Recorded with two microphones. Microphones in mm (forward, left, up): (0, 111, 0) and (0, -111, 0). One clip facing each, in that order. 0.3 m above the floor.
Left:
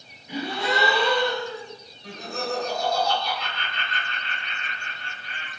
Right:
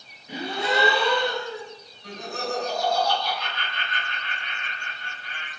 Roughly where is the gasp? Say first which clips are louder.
Even; right.